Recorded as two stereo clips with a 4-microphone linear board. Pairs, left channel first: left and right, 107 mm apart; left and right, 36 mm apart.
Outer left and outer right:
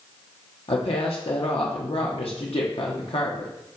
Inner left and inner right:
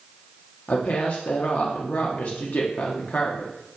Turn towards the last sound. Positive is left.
turn(degrees=60)  # may be behind; listen again after turning